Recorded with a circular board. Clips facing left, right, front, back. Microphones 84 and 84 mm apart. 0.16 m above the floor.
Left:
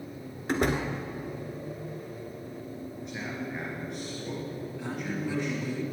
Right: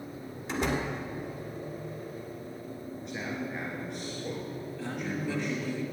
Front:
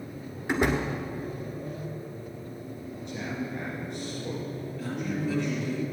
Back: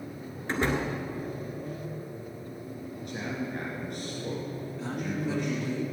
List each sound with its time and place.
0.5 s a door slam: 70° left, 1.4 m
3.0 s a man speaking: straight behind, 2 m
4.8 s a man speaking: 145° left, 1.6 m